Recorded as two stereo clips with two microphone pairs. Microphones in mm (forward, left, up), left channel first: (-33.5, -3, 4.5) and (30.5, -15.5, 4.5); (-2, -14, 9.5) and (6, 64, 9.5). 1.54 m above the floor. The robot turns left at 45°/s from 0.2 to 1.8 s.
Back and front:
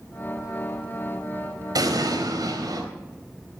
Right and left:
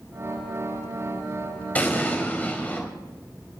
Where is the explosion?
25° right, 4 m; by 2.8 s 30° right, 4 m.